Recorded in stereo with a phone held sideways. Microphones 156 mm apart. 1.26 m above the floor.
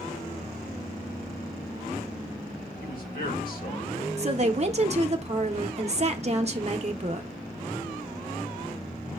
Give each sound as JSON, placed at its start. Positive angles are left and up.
{"t": 2.8, "sound": "a man speaking", "side_deg": 65, "distance_m": 1.8}
{"t": 4.2, "sound": "a woman speaking", "side_deg": -45, "distance_m": 0.6}